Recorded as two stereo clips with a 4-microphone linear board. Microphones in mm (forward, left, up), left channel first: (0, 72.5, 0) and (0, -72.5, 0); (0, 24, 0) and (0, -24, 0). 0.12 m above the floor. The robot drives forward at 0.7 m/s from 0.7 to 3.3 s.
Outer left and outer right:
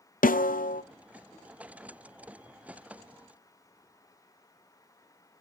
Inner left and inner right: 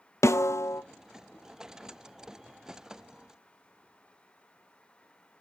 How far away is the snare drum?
About 0.6 m.